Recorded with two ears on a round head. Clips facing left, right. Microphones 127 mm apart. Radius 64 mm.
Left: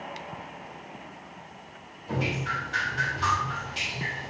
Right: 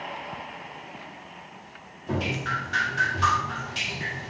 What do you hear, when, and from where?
2.1 s dripping: 60° right (ahead or behind), 1.7 m